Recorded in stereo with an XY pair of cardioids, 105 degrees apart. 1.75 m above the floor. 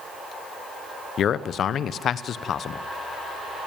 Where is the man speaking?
55° left, 1.1 m.